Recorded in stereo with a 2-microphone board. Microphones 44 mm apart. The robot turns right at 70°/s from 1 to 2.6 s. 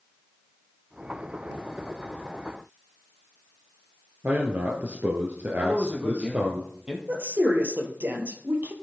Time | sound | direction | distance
4.2 | a man speaking | 50° right (ahead or behind) | 1.9 m
5.6 | a man speaking | 25° right (ahead or behind) | 3 m
7.1 | a woman speaking | 55° right (ahead or behind) | 2.5 m